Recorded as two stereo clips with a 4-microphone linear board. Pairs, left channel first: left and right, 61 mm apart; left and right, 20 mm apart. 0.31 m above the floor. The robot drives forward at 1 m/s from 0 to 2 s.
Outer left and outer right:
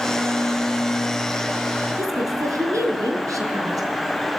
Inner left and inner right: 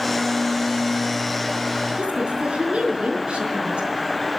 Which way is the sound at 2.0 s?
65° right (ahead or behind).